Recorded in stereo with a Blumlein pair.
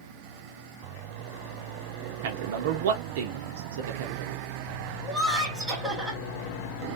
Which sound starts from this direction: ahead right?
A man speaking, at 2.2 s.